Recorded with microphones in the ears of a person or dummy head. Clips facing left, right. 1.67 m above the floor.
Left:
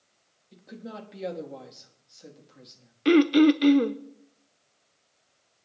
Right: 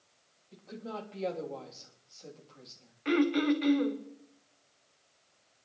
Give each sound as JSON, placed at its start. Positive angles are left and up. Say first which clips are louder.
{"t": 0.5, "sound": "a woman speaking", "louder": "even", "side_deg": 20, "distance_m": 3.5}
{"t": 3.0, "sound": "throat clearing", "louder": "left 9 dB", "side_deg": 50, "distance_m": 0.9}